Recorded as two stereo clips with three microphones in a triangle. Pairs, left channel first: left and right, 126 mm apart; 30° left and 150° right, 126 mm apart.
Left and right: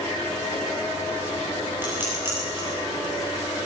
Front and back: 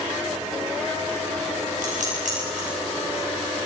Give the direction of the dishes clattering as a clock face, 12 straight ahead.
5 o'clock.